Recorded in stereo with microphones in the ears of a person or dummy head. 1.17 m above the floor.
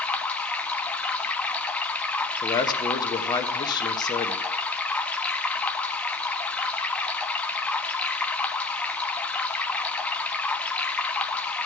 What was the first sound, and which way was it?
Running water, 10° left (ahead or behind).